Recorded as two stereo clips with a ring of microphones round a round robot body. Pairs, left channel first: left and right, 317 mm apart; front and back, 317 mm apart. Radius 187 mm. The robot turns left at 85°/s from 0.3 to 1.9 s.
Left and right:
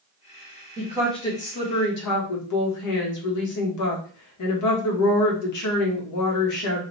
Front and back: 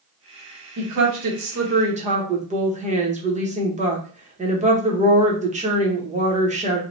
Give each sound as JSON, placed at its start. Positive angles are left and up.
{"t": 0.8, "sound": "a woman speaking", "azimuth_deg": -150, "distance_m": 1.0}